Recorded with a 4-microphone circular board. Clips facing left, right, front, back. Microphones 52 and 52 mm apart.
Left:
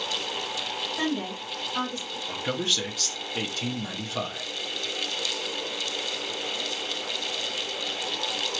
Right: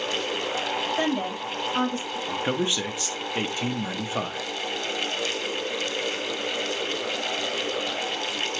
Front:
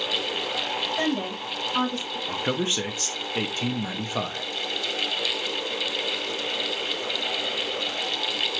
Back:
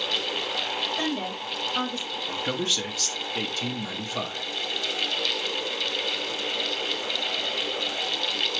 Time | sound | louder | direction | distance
1.0 | a woman speaking | right 3 dB, front 2 dB | 45° right | 3 m
2.3 | a man speaking | right 3 dB, front 2 dB | 40° right | 0.8 m